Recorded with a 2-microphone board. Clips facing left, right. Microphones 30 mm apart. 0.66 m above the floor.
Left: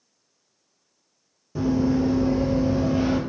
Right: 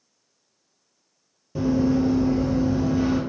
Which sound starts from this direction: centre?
Running footsteps, at 1.6 s.